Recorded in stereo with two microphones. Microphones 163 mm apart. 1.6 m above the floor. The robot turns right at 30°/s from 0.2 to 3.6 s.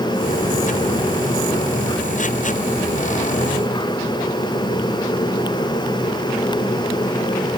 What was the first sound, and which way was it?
Only background noise.